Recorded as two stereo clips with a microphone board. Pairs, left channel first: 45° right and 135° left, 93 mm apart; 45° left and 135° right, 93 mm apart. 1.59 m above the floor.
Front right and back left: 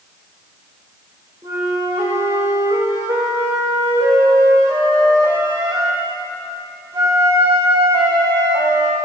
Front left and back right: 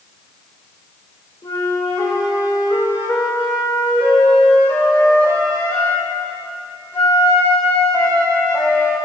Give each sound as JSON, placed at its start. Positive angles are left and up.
{"t": 1.4, "sound": "a flute", "azimuth_deg": 90, "distance_m": 2.0}